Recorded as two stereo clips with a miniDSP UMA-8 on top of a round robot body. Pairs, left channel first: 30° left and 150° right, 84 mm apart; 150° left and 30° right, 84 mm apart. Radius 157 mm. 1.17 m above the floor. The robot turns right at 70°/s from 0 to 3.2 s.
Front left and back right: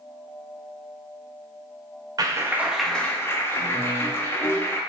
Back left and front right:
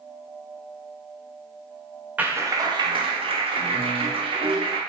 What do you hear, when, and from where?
2.2 s a clap: 105° right, 0.8 m; by 4.8 s 35° right, 0.8 m